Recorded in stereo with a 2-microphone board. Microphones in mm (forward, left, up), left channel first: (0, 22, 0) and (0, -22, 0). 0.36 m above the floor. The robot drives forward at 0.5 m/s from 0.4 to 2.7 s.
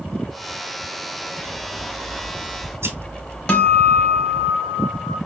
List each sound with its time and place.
1.4 s scissors: 70° right (ahead or behind), 1.1 m
3.5 s a guitar: 25° left (ahead or behind), 1.1 m